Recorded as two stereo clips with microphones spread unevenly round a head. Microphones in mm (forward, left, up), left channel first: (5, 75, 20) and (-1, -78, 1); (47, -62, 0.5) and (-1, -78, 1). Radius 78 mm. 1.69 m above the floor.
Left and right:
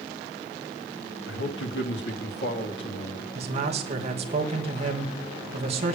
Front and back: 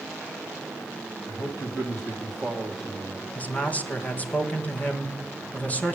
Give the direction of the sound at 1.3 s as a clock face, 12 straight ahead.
9 o'clock.